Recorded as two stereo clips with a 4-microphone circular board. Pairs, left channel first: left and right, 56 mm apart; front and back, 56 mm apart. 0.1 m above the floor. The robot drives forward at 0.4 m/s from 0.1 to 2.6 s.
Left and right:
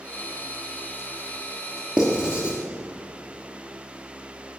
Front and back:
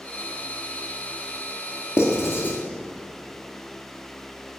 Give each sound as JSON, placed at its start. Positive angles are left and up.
{"t": 2.0, "sound": "writing", "azimuth_deg": -20, "distance_m": 1.2}